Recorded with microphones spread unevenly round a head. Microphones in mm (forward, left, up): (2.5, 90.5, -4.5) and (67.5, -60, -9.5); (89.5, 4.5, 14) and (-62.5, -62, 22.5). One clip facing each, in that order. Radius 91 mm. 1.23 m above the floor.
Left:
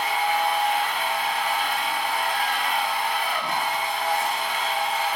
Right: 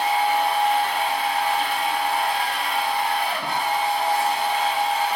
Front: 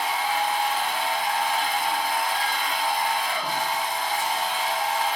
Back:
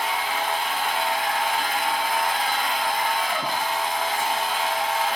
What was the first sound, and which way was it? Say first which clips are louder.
A machine running: right 3 dB, front 1 dB; 130° right.